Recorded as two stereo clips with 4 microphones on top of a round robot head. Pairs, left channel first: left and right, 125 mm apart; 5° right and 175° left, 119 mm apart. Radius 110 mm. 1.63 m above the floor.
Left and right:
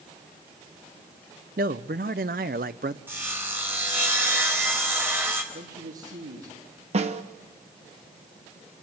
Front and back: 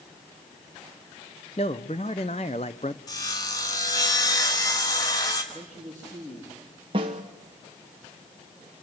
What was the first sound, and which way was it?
A man speaking, 60° right.